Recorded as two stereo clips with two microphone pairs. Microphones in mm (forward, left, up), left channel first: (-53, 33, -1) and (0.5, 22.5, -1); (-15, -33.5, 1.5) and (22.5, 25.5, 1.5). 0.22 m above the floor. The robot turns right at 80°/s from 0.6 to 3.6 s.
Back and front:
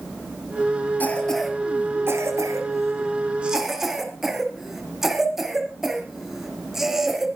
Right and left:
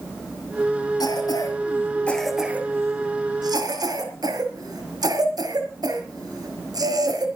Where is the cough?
135° right, 4 m; by 7.3 s 70° left, 4 m.